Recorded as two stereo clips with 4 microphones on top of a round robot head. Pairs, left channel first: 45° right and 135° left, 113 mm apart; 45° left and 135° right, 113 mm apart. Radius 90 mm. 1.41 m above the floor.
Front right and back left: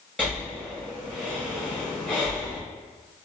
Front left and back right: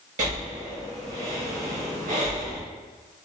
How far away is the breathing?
About 1.3 m.